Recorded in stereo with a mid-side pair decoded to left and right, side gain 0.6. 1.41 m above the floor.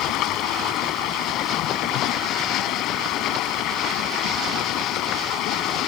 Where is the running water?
65° left.